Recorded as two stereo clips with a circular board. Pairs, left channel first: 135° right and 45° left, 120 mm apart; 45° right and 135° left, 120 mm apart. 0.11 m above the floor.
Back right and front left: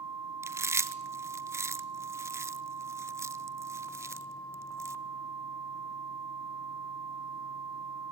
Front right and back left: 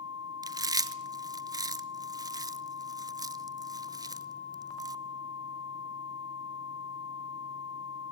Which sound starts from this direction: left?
Chewing, at 0.4 s.